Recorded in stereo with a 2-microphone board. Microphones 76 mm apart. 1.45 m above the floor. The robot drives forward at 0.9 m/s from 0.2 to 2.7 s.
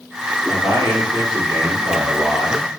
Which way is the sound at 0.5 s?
65° right (ahead or behind).